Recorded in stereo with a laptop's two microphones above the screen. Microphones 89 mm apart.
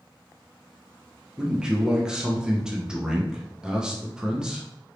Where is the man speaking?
10° right (ahead or behind), 0.6 m.